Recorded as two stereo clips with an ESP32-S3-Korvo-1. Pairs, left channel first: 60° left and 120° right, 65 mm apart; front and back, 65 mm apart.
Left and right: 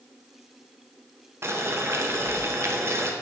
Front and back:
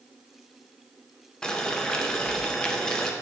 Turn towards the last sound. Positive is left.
turn(degrees=-80)